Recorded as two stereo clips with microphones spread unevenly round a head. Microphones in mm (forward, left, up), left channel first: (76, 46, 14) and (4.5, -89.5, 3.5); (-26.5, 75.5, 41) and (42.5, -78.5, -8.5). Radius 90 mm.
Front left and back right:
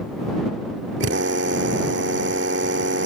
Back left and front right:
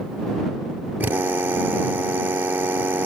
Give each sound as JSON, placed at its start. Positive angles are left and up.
{"t": 1.0, "sound": "a drill", "azimuth_deg": -150}